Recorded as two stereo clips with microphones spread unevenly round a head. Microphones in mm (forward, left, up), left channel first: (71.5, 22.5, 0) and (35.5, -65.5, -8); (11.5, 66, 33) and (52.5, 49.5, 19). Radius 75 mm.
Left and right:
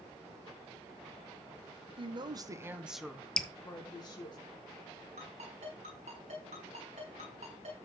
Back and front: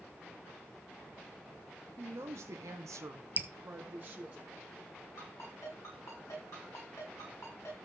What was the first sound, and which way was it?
A woman speaking, 80° right.